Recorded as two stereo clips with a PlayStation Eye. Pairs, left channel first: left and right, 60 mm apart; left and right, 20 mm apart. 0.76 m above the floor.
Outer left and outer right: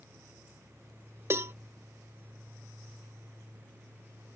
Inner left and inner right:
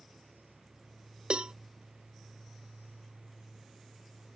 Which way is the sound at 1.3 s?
45° right (ahead or behind).